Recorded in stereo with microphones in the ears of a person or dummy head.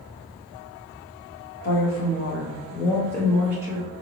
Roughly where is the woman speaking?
Left.